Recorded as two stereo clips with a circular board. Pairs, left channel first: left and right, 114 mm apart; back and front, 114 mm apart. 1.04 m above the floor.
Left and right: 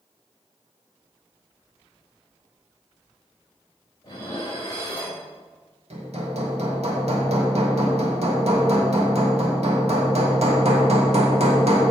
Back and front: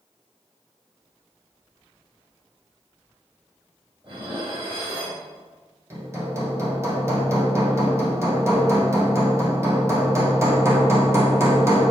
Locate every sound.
4.0 s dishes clattering: 35° left, 3.5 m
5.9 s hammering: 65° right, 1.6 m